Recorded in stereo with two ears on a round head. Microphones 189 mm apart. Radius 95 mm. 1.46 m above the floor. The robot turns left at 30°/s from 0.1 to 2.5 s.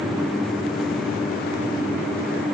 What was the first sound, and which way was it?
Only background noise.